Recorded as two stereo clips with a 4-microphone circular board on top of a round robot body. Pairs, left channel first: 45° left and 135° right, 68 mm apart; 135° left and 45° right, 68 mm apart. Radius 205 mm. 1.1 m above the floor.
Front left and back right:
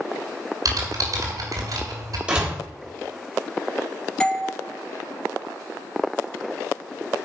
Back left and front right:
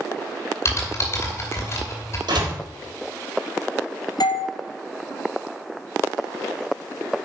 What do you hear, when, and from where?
0.7 s typing on a keyboard: 170° right, 2.5 m
2.3 s a door slam: 60° right, 3.5 m
4.2 s a doorbell: 120° left, 1.7 m